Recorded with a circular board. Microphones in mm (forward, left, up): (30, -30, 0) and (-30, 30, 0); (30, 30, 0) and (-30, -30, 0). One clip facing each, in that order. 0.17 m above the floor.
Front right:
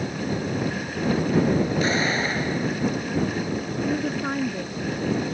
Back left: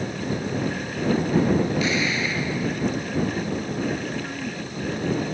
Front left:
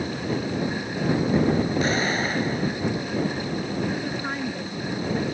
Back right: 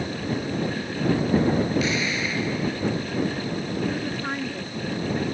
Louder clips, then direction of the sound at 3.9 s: Front right 3 dB, even; 50° right.